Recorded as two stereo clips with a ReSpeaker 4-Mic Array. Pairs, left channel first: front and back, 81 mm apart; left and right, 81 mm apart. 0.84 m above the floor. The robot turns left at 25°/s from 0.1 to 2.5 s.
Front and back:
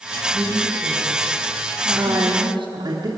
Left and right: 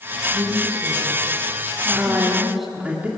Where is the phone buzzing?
No phone buzzing in this recording.